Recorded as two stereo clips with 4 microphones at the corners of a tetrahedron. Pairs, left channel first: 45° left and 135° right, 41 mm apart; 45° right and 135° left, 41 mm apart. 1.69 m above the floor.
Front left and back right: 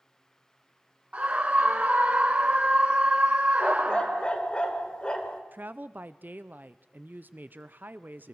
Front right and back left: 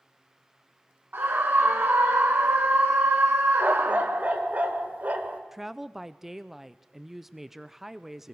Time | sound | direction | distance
1.1 | a scream | 170° left | 0.8 m
3.6 | a dog barking | 100° left | 1.9 m
5.5 | a woman speaking | 145° right | 0.6 m